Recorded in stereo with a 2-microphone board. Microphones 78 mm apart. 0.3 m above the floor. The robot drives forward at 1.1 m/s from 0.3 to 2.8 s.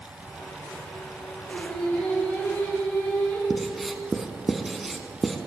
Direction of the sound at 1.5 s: 20° left (ahead or behind).